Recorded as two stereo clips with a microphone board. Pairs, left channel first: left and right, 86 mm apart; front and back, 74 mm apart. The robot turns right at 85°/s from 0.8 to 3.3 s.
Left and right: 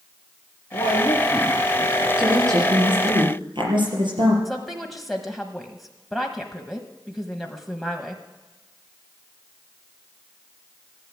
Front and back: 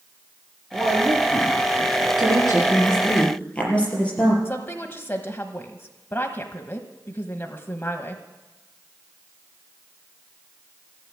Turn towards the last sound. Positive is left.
turn(degrees=0)